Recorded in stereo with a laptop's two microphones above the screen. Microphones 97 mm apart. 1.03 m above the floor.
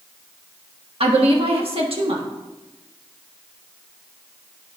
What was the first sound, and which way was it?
A woman speaking, 75° right (ahead or behind).